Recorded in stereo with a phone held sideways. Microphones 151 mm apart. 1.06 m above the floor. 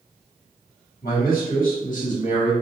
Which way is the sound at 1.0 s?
85° left.